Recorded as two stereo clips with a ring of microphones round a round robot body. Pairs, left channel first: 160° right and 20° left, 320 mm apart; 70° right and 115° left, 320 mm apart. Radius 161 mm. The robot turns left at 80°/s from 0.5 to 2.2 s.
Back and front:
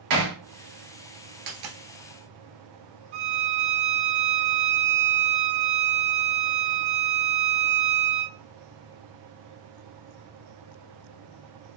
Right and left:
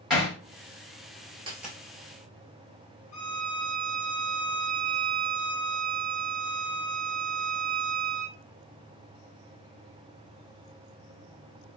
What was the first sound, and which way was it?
Hammering, 25° left.